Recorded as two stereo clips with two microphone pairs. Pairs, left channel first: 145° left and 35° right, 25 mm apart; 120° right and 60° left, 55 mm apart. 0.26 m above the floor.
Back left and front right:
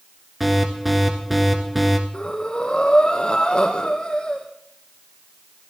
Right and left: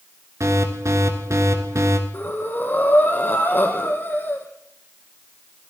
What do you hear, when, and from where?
0.4 s an alarm: 45° left, 3 m
2.1 s breathing: 165° right, 3 m